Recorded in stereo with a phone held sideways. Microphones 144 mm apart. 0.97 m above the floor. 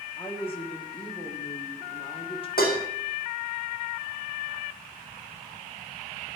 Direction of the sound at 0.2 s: 35° left (ahead or behind).